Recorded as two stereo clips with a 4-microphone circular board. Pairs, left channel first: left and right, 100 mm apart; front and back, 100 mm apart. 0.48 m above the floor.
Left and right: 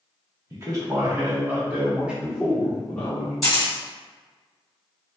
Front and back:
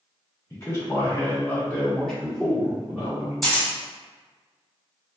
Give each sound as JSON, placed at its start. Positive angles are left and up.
{"t": 0.5, "sound": "a man speaking", "azimuth_deg": -50, "distance_m": 1.6}
{"t": 3.4, "sound": "a camera shutter", "azimuth_deg": 75, "distance_m": 1.6}